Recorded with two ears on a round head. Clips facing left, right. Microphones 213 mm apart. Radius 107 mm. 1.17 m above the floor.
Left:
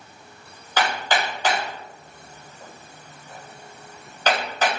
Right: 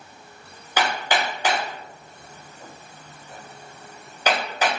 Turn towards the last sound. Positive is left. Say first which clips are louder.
# even
turn(degrees=-10)  # may be behind; listen again after turning